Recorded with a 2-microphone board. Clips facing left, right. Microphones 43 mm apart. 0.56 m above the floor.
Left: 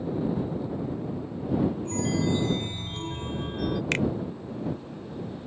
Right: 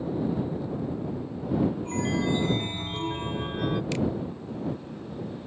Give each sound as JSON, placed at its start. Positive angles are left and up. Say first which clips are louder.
{"t": 1.9, "sound": "a chime", "louder": "even", "side_deg": -25}
{"t": 3.9, "sound": "a finger snap", "louder": "left 5 dB", "side_deg": 60}